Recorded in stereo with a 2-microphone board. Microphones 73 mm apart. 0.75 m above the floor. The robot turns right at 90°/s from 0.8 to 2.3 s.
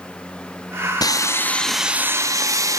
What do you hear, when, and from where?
1.0 s sawing: 115° left, 0.5 m; by 2.8 s 130° right, 0.5 m